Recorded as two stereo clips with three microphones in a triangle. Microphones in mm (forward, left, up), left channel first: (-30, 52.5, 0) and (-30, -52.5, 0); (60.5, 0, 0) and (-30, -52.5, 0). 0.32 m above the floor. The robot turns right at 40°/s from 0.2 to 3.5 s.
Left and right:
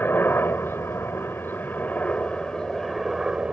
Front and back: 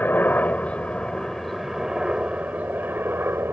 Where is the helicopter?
65° left; by 3.5 s 160° right.